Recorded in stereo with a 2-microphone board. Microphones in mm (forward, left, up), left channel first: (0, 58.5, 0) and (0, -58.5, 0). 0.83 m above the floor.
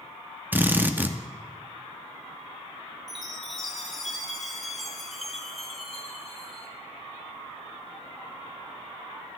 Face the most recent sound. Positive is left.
turn(degrees=0)  # may be behind; listen again after turning